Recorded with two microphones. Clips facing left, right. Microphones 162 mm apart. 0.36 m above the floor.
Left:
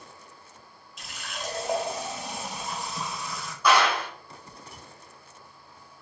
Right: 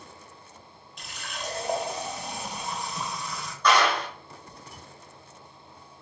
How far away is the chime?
No chime in this recording.